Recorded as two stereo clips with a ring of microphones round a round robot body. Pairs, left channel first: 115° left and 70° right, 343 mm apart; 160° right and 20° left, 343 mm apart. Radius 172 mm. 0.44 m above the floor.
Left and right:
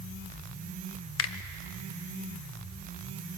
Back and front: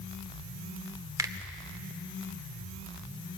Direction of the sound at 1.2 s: 95° left.